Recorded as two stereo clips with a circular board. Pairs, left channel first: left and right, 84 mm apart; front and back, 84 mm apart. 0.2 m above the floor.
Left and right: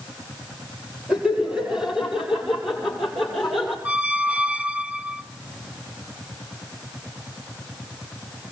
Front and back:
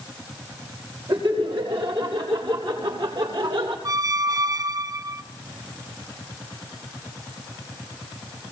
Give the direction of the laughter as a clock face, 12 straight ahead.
6 o'clock.